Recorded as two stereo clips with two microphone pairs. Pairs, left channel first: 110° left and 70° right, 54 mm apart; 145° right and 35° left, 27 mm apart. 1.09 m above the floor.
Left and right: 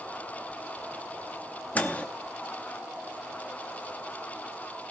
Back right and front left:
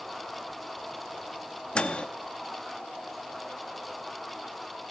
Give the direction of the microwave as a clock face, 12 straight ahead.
6 o'clock.